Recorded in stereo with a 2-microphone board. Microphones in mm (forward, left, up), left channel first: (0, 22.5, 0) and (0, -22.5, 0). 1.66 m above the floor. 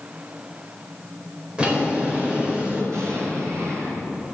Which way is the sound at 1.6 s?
20° right (ahead or behind).